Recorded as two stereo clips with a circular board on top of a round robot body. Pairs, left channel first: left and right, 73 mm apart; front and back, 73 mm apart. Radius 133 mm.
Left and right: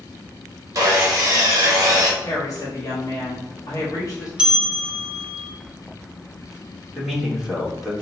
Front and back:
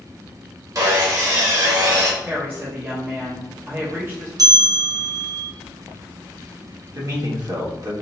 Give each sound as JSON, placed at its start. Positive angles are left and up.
{"t": 0.8, "sound": "sawing", "azimuth_deg": -135, "distance_m": 0.8}
{"t": 2.2, "sound": "a woman speaking", "azimuth_deg": 130, "distance_m": 1.1}
{"t": 4.4, "sound": "a bell", "azimuth_deg": -165, "distance_m": 0.9}
{"t": 7.0, "sound": "a man speaking", "azimuth_deg": -170, "distance_m": 1.4}